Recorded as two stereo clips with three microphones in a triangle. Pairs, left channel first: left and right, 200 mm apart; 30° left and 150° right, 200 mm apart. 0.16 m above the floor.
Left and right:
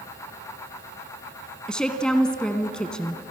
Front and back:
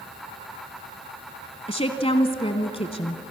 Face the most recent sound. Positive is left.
turn(degrees=10)